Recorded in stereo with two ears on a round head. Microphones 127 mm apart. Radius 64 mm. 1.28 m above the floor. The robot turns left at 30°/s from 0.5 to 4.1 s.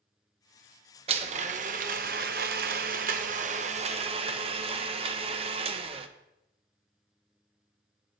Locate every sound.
1.1 s a blender: 45° right, 0.6 m; by 6.1 s 135° right, 0.6 m